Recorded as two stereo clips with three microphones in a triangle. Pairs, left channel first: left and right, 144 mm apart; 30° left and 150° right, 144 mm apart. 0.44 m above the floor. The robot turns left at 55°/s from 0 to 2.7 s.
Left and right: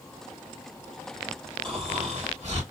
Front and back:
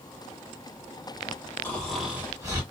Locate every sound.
1.6 s snoring: 40° right, 2.5 m; by 2.6 s 95° right, 2.5 m